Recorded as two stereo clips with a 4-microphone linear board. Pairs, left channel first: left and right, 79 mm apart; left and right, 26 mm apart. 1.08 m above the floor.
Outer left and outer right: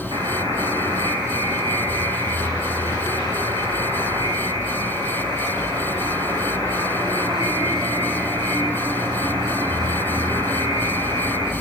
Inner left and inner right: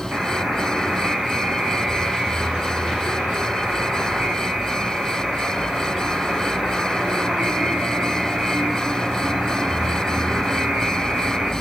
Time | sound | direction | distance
0.1 | a buzzer | 70° right (ahead or behind) | 6 m